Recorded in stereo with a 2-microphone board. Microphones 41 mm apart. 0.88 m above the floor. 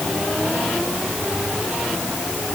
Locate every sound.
Only background noise.